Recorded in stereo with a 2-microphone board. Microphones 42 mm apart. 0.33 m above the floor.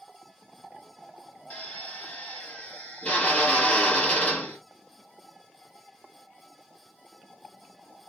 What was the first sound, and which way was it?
A drill, 35° left (ahead or behind).